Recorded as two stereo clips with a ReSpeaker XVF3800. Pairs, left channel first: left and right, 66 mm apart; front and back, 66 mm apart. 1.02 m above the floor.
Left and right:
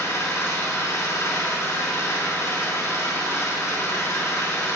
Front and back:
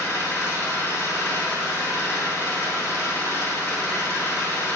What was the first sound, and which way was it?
An engine running, 50° left.